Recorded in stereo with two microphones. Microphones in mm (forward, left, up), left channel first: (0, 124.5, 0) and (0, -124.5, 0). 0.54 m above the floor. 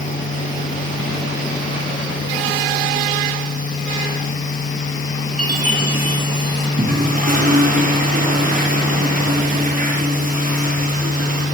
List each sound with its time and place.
5.4 s a chime: 80° left, 8 m
6.8 s a toilet flushing: 35° right (ahead or behind), 9.5 m